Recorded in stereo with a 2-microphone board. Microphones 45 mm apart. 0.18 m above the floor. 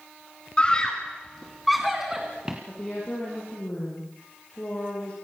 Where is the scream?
20° left (ahead or behind), 1.9 m; by 2.6 s 20° right (ahead or behind), 2 m.